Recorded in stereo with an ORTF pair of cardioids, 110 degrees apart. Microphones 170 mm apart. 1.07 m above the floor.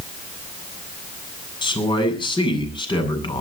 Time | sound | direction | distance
1.6 | a man speaking | 30° left | 8 m